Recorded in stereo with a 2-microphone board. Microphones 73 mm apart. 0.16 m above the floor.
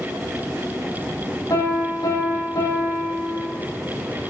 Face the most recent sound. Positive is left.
turn(degrees=75)  # may be behind; listen again after turning